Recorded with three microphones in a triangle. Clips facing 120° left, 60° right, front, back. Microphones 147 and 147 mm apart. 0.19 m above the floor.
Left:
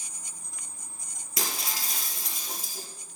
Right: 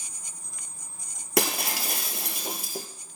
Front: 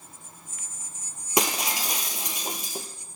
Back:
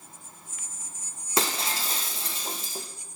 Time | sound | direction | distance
1.4 | breaking glass | 75° right | 1.1 m